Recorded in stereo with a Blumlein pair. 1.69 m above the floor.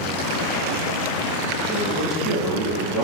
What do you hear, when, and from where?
1.7 s a man speaking: 5° right, 1.6 m